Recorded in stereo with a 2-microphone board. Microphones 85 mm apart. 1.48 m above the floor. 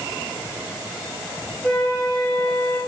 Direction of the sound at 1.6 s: 15° left (ahead or behind).